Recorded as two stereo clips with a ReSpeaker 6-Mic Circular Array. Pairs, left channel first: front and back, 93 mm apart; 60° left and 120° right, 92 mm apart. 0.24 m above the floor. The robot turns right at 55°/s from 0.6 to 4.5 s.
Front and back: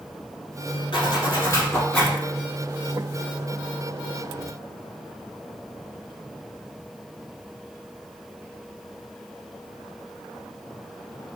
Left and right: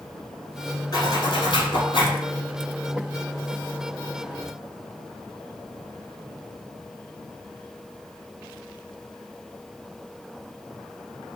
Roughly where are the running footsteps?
No running footsteps in this recording.